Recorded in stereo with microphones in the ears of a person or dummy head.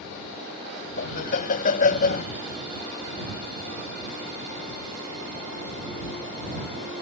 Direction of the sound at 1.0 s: 45° left (ahead or behind).